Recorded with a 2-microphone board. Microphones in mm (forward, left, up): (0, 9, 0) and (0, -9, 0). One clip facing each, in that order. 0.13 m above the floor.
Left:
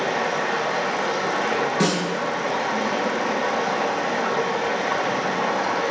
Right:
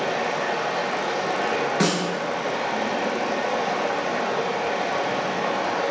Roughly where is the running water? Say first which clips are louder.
Left 1 dB; left.